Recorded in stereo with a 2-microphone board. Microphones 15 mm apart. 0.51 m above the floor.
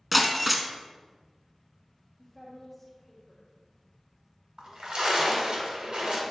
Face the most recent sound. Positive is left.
turn(degrees=-70)  # may be behind; listen again after turning